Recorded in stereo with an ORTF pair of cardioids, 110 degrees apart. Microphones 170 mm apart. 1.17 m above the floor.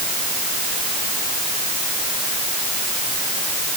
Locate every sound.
Only background noise.